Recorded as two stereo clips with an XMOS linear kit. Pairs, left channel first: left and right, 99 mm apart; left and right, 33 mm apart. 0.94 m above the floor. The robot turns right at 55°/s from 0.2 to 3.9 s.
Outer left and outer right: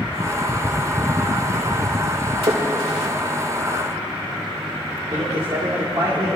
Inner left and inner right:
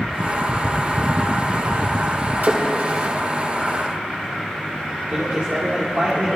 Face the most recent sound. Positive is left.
turn(degrees=-45)  # may be behind; listen again after turning